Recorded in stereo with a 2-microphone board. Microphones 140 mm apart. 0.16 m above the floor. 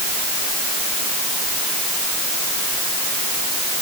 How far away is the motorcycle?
I don't hear a motorcycle.